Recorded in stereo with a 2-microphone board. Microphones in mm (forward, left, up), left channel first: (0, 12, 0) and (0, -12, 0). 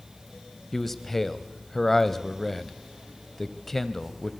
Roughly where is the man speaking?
Centre.